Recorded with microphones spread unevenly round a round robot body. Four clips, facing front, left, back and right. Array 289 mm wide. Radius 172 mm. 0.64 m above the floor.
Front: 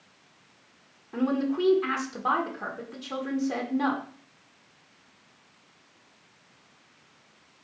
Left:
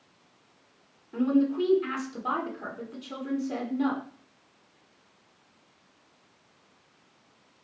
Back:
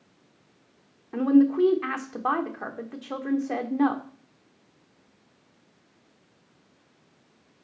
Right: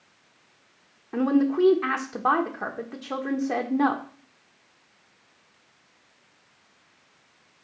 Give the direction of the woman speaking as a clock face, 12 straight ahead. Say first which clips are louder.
Right 3 dB, back 7 dB; 3 o'clock.